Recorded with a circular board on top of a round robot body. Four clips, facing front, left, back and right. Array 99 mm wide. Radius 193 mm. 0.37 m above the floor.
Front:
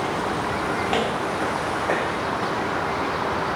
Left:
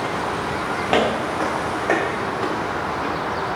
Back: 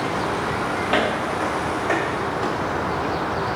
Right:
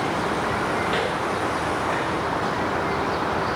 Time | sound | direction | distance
0.9 | footsteps | 100° left | 0.6 m